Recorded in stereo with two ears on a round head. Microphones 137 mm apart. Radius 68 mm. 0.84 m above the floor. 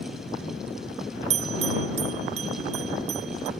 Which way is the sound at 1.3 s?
45° right (ahead or behind).